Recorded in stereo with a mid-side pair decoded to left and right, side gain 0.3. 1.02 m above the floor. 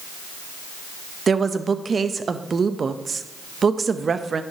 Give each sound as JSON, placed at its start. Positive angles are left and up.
{"t": 1.3, "sound": "a woman speaking", "azimuth_deg": -55, "distance_m": 0.7}